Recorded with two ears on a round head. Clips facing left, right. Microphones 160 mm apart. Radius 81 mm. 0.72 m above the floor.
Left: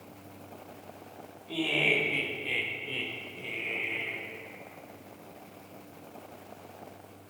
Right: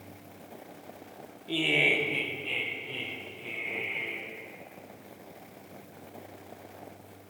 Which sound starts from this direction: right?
Laughter, at 1.5 s.